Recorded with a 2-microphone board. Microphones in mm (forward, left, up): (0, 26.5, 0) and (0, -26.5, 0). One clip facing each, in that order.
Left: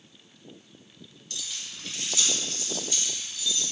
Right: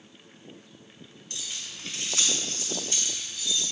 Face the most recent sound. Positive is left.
turn(degrees=-50)  # may be behind; listen again after turning